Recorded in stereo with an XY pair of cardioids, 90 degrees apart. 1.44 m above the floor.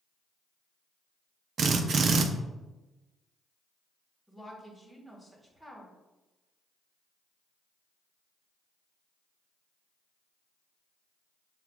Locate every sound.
1.6 s a drill: 60° right, 0.5 m
4.3 s a woman speaking: straight ahead, 1.6 m